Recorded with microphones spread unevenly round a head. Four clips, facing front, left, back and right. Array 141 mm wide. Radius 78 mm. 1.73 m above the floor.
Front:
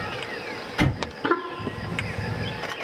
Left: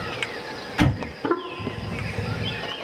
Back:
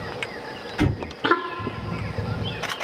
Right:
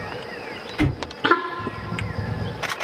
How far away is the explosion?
About 3.5 m.